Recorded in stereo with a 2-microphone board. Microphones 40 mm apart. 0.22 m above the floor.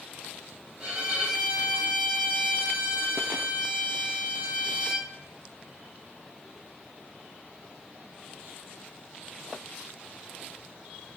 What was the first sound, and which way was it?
A violin, 25° right (ahead or behind).